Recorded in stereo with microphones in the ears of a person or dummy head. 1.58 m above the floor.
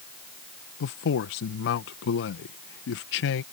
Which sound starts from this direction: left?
A man speaking, at 0.8 s.